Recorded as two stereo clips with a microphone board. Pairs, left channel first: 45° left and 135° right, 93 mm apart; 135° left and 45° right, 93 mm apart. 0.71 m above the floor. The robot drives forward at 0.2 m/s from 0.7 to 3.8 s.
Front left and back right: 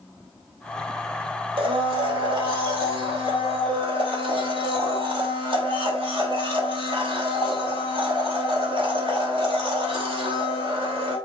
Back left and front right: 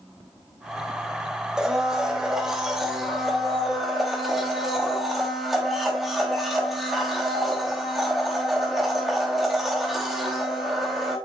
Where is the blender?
125° right, 3 m; by 11.2 s 135° right, 3 m.